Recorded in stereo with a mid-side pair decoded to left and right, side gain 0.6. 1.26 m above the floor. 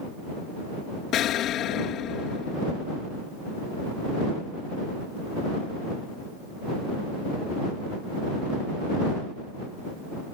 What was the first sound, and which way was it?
An explosion, 60° left.